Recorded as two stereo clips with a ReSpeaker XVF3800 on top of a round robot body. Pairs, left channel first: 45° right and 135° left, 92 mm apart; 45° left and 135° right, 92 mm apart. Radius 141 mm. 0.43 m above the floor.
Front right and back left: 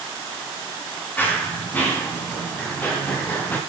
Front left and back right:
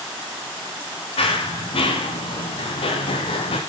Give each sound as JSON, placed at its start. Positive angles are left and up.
{"t": 1.2, "sound": "running footsteps", "azimuth_deg": 25, "distance_m": 6.5}